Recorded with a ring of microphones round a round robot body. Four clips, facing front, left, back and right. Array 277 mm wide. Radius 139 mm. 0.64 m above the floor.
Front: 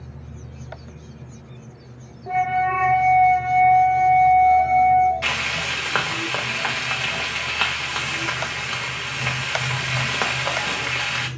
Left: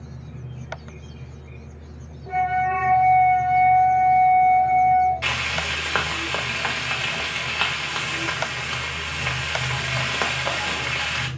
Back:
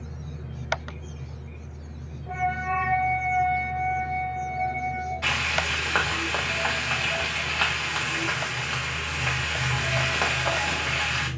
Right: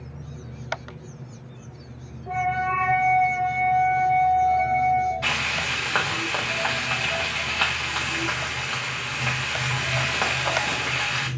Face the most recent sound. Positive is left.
turn(degrees=35)